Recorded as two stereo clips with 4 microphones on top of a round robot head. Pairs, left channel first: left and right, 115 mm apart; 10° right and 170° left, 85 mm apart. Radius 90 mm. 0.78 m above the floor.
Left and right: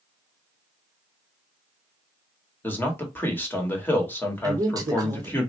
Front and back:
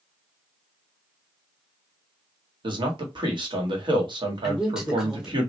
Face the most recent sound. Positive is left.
turn(degrees=-115)